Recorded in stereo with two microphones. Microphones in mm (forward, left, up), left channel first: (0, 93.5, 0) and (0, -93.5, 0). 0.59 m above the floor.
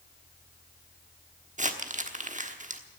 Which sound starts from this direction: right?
Crumpling, at 1.6 s.